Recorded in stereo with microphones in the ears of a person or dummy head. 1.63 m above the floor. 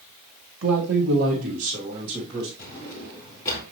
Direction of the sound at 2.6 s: 15° left (ahead or behind).